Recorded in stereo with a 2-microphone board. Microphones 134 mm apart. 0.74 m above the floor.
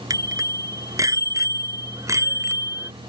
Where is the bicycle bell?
25° right (ahead or behind); by 2.9 s 20° right (ahead or behind).